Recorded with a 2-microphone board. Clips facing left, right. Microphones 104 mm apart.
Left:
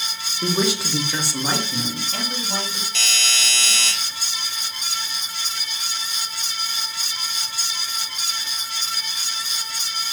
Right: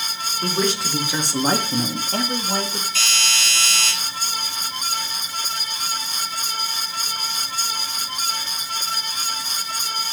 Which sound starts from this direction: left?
A doorbell, at 2.9 s.